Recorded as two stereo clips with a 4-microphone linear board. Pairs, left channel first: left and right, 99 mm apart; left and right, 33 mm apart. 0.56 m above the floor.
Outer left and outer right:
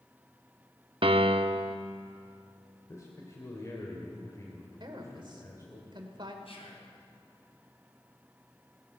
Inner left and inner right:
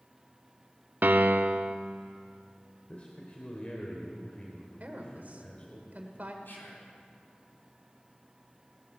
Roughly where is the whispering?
Left.